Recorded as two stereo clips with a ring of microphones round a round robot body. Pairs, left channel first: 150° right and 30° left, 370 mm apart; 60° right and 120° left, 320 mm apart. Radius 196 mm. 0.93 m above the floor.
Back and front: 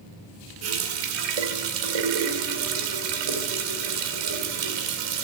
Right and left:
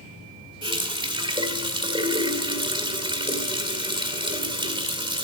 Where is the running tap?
45° left, 2.5 m.